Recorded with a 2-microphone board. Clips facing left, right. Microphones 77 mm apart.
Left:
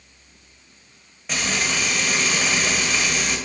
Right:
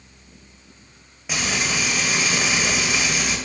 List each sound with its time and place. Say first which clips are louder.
1.3 s frying: even; 5° right (ahead or behind), 0.5 m